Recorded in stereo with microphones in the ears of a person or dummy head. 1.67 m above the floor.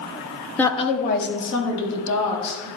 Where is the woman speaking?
5° left (ahead or behind), 0.9 m; by 2.7 s 80° left, 3 m.